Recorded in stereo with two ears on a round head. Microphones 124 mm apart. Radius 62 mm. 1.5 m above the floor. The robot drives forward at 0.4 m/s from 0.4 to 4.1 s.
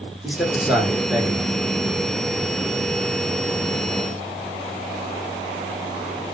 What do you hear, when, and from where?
0.2 s a man speaking: 5° right (ahead or behind), 1.6 m